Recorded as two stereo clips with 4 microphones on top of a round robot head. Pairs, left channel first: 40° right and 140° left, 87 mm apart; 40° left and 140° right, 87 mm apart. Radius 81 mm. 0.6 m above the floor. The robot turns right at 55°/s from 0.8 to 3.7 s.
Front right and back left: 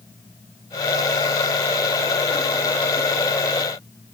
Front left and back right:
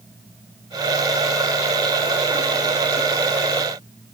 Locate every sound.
Only background noise.